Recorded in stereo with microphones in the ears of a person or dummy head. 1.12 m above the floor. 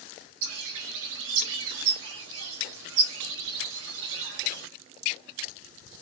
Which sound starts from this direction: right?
A bird, at 0.4 s.